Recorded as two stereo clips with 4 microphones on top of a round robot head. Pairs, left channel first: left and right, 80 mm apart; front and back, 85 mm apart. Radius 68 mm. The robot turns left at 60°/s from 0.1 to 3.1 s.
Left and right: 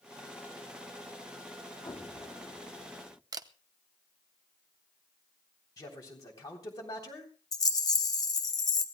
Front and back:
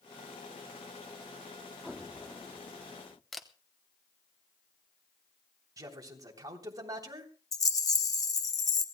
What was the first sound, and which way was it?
An explosion, 105° left.